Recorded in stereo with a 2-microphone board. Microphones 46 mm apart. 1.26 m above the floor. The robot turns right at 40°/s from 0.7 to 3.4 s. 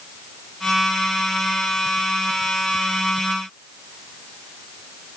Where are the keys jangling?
No keys jangling in this recording.